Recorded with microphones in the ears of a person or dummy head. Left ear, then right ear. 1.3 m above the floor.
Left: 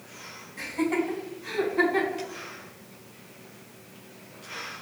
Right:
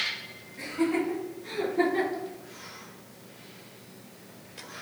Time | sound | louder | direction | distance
0.6 | laughter | left 1 dB | 80° left | 2.5 m